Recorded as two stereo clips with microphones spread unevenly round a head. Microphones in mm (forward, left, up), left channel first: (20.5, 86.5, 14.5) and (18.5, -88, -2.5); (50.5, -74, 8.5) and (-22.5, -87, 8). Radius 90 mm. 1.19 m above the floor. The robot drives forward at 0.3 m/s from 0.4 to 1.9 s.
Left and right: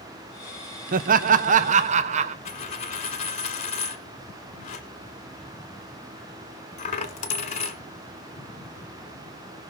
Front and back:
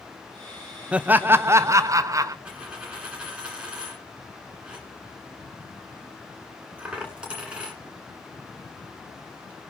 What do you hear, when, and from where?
0.9 s laughter: 100° right, 0.5 m; by 2.4 s 135° right, 0.6 m
2.5 s a dropped coin: 110° left, 1.4 m